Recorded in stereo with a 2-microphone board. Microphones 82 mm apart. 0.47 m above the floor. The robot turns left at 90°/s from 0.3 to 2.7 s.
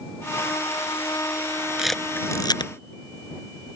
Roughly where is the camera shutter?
Centre.